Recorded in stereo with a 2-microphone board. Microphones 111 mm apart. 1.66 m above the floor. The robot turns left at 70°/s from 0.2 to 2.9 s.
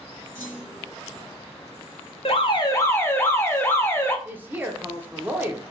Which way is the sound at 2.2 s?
65° left.